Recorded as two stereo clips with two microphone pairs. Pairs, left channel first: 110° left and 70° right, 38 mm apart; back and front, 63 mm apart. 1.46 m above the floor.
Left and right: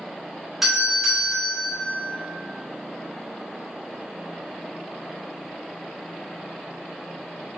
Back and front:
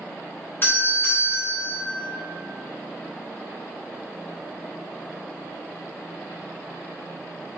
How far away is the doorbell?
About 0.8 m.